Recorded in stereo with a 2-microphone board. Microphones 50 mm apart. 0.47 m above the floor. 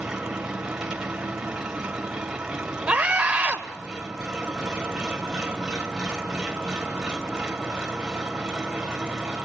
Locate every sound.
0.0 s an engine running: 10° right (ahead or behind), 2.0 m
2.9 s a scream: 20° right (ahead or behind), 2 m